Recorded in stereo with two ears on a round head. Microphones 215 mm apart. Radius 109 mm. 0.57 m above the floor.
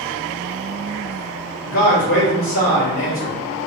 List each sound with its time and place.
1.6 s a man speaking: 65° left (ahead or behind), 1.9 m